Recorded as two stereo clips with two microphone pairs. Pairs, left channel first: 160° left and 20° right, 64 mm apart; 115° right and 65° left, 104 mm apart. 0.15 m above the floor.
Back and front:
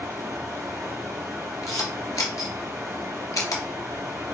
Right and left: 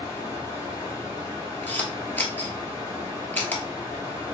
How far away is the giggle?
I don't hear a giggle.